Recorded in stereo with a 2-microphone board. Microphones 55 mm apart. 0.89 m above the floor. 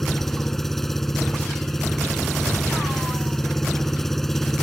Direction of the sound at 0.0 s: 5° left (ahead or behind).